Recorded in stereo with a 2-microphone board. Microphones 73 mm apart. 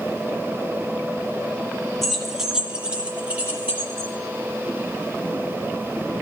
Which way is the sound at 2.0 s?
5° left (ahead or behind).